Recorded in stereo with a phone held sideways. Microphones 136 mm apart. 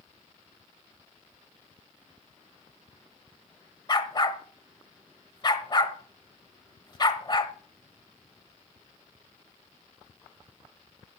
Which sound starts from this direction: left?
A dog barking, at 3.9 s.